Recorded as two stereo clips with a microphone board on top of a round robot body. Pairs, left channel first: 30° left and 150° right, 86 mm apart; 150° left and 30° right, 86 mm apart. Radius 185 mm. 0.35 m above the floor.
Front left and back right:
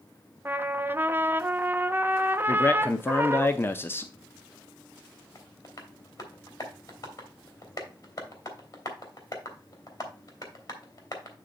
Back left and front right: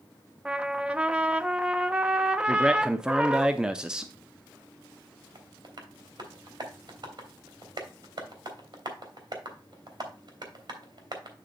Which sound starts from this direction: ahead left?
A man speaking, at 2.5 s.